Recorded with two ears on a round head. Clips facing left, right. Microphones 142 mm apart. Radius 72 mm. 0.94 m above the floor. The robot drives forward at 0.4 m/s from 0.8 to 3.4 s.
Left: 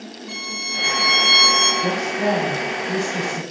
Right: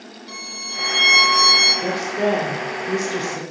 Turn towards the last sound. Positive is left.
turn(degrees=-75)  # may be behind; listen again after turning